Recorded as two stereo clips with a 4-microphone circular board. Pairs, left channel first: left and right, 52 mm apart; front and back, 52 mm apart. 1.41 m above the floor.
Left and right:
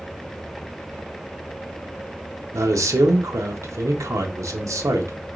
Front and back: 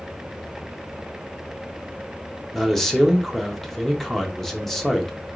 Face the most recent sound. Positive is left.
turn(degrees=-85)